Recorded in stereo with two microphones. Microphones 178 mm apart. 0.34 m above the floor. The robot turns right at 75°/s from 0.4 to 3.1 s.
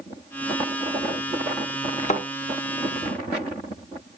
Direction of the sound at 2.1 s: 40° left (ahead or behind).